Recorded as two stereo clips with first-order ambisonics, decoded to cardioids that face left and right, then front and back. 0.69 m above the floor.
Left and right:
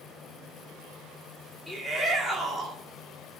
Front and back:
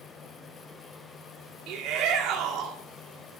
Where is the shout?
175° left, 1.7 m.